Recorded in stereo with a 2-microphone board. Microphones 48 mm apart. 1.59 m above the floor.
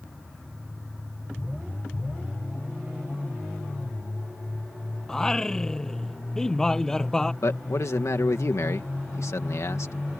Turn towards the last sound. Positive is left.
turn(degrees=75)  # may be behind; listen again after turning